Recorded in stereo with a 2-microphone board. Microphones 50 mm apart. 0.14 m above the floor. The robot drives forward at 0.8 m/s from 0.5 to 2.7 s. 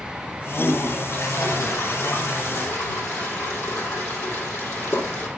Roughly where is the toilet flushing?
Left.